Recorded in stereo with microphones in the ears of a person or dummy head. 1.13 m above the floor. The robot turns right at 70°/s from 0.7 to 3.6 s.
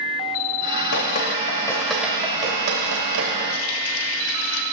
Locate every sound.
0.9 s dripping: 70° left (ahead or behind), 2 m; by 3.4 s 75° right (ahead or behind), 2 m
3.5 s a running tap: 75° left (ahead or behind), 1.3 m; by 4.6 s 80° left, 1.3 m